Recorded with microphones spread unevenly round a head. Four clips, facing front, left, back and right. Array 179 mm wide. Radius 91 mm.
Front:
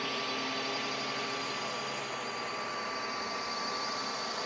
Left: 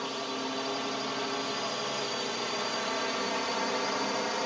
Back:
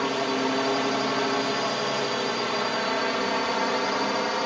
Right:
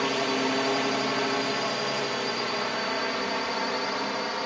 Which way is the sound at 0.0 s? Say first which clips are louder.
Right 8 dB, back 11 dB; 150° right.